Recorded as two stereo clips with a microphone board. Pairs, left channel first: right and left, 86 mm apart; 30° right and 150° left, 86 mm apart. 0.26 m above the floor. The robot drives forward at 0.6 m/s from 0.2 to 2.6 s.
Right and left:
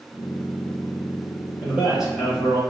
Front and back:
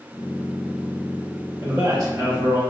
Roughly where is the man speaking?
Behind.